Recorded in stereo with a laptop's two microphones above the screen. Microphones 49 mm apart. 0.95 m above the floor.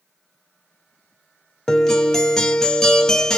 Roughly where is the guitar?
Centre.